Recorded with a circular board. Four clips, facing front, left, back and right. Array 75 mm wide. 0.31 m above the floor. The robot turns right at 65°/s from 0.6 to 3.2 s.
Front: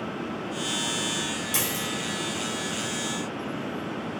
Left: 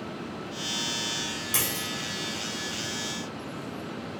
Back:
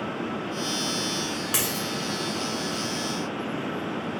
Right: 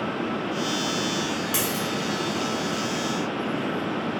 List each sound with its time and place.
1.5 s a dropped coin: 165° right, 1.4 m; by 1.9 s 145° right, 1.4 m